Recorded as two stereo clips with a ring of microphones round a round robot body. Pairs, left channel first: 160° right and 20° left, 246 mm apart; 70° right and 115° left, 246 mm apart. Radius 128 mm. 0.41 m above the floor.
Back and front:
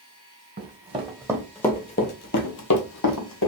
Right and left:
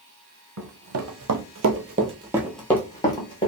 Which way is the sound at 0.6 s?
80° left.